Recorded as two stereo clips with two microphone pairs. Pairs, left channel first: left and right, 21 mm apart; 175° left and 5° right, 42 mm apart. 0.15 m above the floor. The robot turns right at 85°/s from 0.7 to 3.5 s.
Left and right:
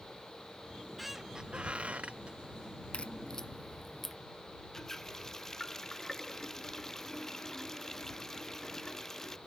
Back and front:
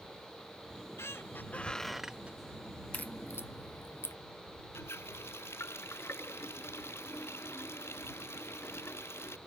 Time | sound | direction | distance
0.7 | a squeak | 160° left | ?
2.9 | a crack | 115° left | ?
4.7 | a running tap | 160° left | ?